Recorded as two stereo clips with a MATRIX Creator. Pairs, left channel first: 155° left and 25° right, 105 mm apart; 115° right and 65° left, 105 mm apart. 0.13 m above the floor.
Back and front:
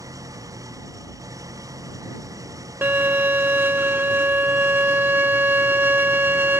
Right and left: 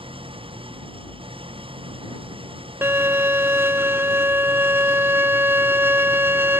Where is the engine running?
35° left.